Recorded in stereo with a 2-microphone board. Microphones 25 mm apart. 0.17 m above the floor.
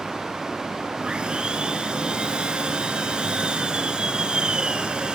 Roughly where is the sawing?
Right.